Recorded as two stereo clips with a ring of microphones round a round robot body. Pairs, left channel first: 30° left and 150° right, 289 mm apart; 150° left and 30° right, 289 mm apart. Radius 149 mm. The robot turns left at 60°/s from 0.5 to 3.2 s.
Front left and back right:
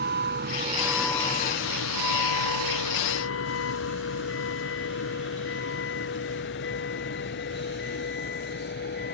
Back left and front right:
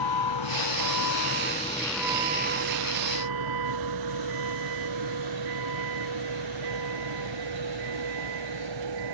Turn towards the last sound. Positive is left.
turn(degrees=-25)